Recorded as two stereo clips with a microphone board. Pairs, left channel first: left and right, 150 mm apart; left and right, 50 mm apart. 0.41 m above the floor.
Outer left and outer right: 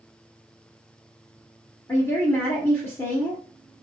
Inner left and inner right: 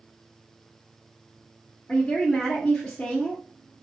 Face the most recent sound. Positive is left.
turn(degrees=15)  # may be behind; listen again after turning